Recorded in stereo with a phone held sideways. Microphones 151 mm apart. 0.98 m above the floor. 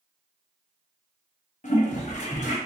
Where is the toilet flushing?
55° left (ahead or behind), 0.9 m.